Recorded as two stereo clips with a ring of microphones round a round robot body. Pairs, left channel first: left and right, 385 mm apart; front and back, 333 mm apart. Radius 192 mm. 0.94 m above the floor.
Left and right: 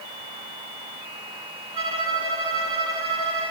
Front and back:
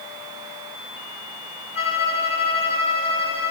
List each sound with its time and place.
1.7 s a violin: 45° right, 4.5 m